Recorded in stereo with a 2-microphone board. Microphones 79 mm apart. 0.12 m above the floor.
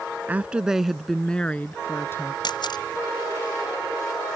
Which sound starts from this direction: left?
A camera shutter, at 2.4 s.